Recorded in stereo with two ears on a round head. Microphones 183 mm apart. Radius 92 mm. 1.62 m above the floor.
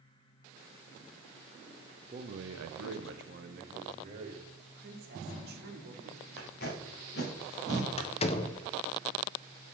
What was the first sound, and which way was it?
A man speaking, 35° right (ahead or behind).